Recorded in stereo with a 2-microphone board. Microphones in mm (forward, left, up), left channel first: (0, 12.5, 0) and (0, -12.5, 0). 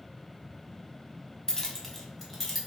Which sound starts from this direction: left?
Keys jangling, at 1.5 s.